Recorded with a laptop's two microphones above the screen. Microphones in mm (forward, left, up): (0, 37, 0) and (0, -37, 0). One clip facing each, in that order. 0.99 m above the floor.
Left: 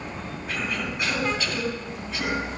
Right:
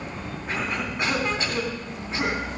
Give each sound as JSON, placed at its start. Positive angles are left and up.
{"t": 0.5, "sound": "a cough", "side_deg": -25, "distance_m": 3.0}